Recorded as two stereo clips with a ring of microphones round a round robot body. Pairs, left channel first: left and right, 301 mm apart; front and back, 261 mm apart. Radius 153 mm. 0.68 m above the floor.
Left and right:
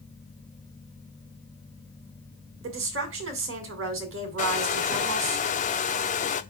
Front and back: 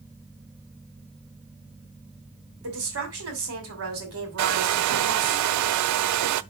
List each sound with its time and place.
2.6 s a woman speaking: 140° right, 2.5 m
4.4 s a hair dryer: 160° left, 0.5 m